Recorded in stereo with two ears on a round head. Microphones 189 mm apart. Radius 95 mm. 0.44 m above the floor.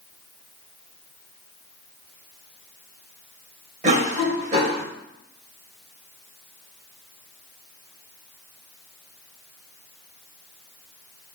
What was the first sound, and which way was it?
A cough, 35° right (ahead or behind).